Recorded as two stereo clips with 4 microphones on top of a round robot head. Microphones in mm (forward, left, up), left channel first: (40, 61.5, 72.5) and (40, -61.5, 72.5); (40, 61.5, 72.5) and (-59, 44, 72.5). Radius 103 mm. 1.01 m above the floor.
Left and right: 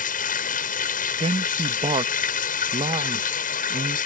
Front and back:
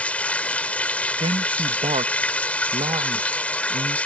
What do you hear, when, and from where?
0.0 s running water: 90° left
1.2 s a man speaking: 135° right